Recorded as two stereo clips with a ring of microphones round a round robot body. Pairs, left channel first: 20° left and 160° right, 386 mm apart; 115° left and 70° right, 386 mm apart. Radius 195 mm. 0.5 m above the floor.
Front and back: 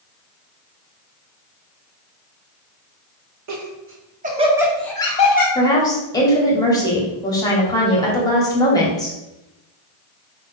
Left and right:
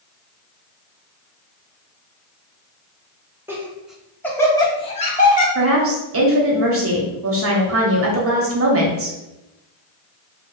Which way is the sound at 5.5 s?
50° right.